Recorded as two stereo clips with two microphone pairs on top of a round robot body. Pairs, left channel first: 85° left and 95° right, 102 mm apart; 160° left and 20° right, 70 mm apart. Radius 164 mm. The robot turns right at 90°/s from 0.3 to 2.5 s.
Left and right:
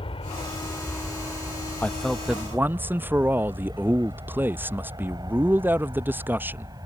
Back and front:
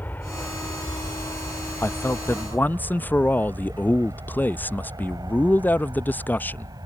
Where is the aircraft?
100° left; by 6.9 s 40° right.